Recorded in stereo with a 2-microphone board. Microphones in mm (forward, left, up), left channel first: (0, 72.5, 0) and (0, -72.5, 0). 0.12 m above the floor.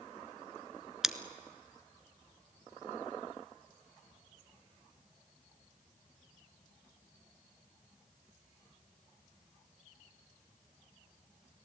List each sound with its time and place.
1.0 s scissors: 5° right (ahead or behind), 0.9 m